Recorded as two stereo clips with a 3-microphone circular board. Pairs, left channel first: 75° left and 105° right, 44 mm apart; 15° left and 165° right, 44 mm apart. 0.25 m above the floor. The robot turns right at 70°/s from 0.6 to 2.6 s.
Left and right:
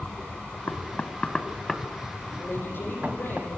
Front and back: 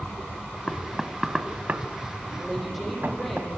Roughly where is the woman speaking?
Left.